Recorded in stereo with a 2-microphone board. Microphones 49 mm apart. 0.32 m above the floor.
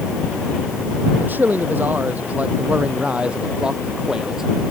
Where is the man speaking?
40° right (ahead or behind); by 4.4 s 10° right (ahead or behind).